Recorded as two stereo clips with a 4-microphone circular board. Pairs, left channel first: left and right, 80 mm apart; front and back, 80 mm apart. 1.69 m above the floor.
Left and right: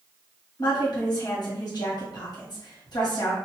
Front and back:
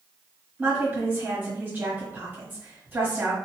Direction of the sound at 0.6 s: 115° left.